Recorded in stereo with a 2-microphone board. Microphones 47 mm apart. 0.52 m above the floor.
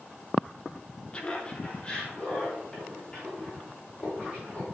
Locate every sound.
1.1 s laughter: 25° left (ahead or behind), 0.9 m; by 4.7 s 20° left (ahead or behind), 5.5 m